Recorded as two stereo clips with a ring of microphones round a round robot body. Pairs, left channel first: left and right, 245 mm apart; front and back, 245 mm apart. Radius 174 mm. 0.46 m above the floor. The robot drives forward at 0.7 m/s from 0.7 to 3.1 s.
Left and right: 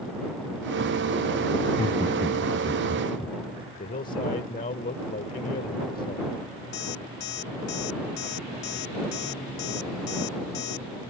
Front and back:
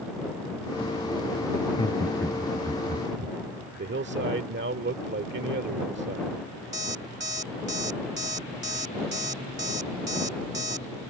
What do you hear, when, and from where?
1.6 s laughter: 30° left; by 3.4 s 155° left
3.8 s a man speaking: 145° left
6.7 s an alarm clock: 135° left